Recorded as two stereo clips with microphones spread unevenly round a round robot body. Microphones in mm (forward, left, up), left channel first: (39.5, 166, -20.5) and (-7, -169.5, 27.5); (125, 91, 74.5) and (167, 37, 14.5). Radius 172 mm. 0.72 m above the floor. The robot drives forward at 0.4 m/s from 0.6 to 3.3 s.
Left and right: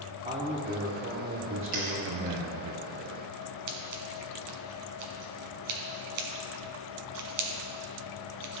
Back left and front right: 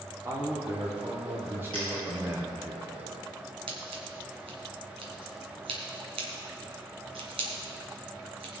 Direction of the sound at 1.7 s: 120° right.